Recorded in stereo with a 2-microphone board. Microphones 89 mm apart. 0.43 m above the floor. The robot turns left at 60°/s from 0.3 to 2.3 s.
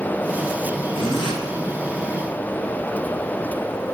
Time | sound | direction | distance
0.9 | a zipper | 75° left (ahead or behind) | 3.5 m